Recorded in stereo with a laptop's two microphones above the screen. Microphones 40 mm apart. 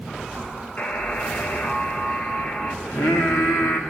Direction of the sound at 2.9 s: 70° left (ahead or behind).